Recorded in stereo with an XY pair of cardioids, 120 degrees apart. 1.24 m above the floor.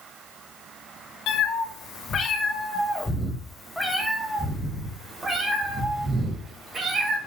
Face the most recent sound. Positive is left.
turn(degrees=-30)